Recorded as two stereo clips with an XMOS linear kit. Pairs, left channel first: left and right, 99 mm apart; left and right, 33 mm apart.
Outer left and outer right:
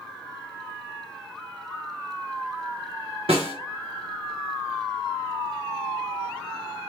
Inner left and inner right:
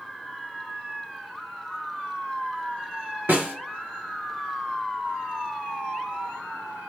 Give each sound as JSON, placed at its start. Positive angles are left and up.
{"t": 3.3, "sound": "a snare drum", "side_deg": -70, "distance_m": 1.7}